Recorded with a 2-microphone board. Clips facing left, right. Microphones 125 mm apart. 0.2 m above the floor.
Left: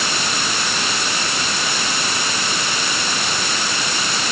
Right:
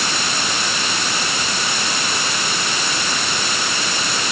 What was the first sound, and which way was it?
Only background noise.